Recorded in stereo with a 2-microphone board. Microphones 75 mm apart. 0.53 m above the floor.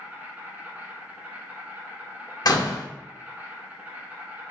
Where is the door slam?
55° left (ahead or behind), 0.6 m.